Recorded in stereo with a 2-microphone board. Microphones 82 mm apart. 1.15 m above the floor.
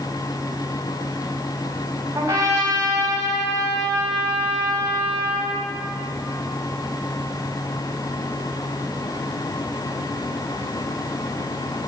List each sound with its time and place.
2.1 s a trumpet: 35° right (ahead or behind), 4 m